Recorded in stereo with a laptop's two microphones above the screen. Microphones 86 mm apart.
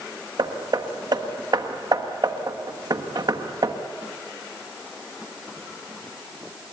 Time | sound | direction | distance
0.4 | hammering | 55° right (ahead or behind) | 1.5 m